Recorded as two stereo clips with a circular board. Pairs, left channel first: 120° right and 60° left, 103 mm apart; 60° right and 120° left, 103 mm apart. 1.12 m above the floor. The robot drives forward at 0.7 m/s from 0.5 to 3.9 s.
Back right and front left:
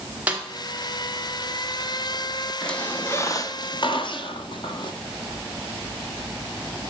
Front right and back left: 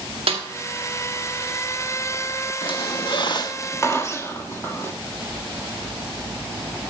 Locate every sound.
0.3 s a snare drum: 135° left, 1.9 m
2.6 s a squeak: 40° right, 0.9 m; by 4.9 s 115° right, 0.8 m